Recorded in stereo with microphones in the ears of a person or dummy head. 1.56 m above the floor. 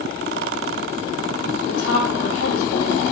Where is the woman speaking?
75° left (ahead or behind), 3 m; by 3.0 s 80° left, 3.5 m.